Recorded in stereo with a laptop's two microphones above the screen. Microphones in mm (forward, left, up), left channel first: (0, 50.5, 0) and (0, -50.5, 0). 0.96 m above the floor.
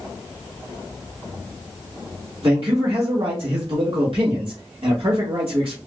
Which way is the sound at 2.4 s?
65° right (ahead or behind).